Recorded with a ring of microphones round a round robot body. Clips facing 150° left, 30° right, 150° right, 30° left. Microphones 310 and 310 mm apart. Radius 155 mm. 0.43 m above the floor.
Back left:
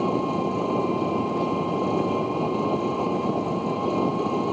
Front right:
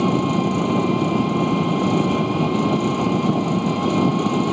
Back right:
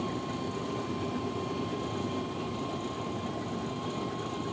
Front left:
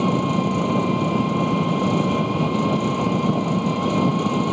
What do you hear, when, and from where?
0.0 s an engine running: 20° left